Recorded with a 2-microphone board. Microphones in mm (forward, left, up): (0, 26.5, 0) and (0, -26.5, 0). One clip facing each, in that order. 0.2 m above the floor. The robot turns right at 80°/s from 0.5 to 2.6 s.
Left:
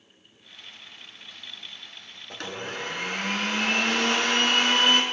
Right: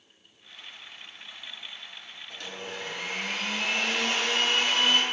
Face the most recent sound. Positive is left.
turn(degrees=65)  # may be behind; listen again after turning